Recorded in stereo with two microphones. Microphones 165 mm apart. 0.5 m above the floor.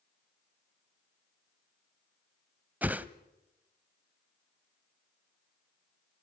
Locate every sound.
2.8 s a whoosh: 10° right (ahead or behind), 0.6 m